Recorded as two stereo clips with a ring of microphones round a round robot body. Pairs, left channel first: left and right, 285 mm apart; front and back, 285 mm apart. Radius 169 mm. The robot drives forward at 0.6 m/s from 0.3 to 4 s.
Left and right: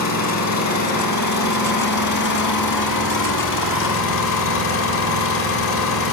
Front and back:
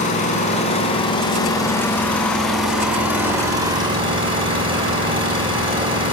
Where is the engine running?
65° left, 3.5 m; by 6.1 s 105° left, 3.5 m.